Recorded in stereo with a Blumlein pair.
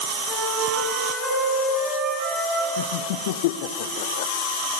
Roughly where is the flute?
Ahead.